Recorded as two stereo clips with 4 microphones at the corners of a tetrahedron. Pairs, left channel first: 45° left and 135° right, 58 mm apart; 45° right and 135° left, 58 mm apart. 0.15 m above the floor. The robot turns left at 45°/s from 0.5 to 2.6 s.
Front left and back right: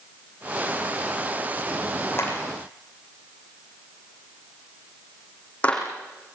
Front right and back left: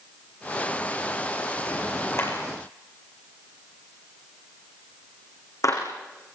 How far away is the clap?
About 7 m.